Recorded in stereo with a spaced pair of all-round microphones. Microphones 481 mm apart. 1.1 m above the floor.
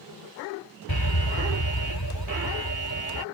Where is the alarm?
50° left (ahead or behind).